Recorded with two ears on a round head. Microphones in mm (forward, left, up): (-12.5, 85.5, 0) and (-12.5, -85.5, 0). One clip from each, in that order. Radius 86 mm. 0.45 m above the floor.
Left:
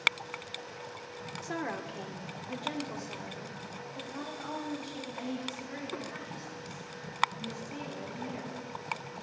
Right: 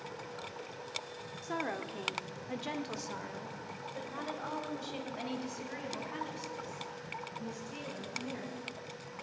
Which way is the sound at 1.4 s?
10° left (ahead or behind).